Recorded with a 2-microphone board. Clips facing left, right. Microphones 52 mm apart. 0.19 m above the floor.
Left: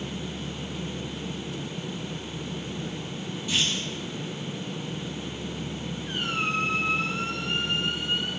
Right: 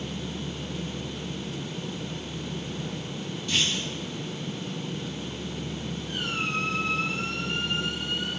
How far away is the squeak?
About 1.6 m.